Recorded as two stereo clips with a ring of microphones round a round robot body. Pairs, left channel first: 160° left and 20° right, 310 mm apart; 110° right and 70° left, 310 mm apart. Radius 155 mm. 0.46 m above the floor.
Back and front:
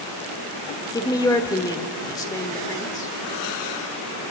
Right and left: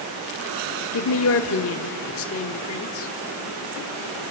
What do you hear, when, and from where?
0.9 s a woman speaking: 130° right, 1.1 m